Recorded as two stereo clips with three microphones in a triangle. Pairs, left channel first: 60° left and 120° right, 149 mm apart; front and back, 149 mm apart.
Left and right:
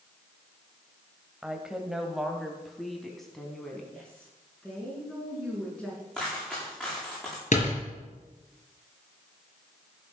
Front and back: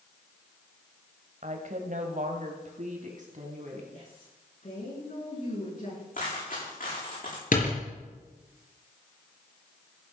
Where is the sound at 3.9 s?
25° right, 6.5 m.